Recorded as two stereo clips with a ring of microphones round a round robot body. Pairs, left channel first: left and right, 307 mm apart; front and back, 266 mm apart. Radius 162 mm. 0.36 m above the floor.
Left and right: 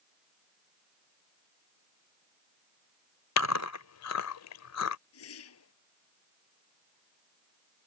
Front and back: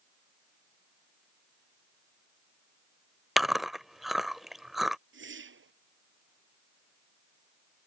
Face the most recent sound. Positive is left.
turn(degrees=135)